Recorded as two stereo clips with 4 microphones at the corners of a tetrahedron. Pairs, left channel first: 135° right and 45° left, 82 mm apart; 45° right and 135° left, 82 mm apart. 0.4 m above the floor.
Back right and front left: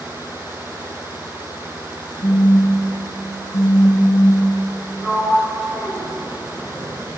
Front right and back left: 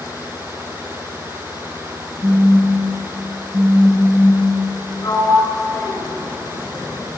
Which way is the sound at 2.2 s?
175° right.